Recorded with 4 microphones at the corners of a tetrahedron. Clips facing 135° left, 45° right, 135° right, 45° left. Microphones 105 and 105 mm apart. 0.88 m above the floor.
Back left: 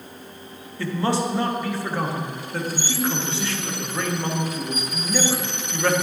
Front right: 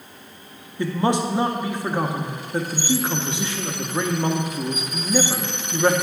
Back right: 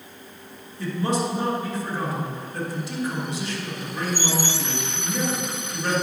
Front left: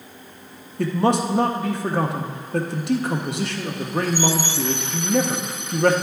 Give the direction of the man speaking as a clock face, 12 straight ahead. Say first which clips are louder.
Front right 2 dB, front left 5 dB; 11 o'clock.